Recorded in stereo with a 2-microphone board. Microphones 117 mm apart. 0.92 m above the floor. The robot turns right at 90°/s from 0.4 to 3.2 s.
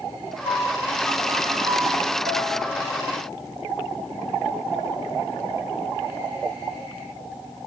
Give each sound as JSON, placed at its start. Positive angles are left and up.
{"t": 0.5, "sound": "a piano", "azimuth_deg": 120, "distance_m": 7.0}